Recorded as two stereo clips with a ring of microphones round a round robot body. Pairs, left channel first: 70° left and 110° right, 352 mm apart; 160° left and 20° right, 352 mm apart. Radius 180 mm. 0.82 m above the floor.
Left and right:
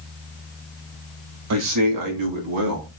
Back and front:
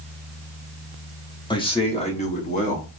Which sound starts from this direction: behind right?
A man speaking, at 1.5 s.